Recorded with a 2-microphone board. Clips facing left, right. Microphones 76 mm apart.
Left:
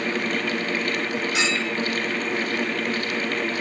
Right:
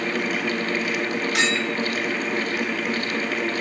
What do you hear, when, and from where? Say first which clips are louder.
1.4 s a clink: right 3 dB; 65° right (ahead or behind), 3 m